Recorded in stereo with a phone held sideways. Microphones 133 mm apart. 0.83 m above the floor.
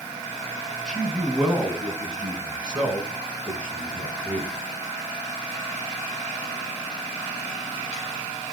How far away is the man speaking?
About 7 m.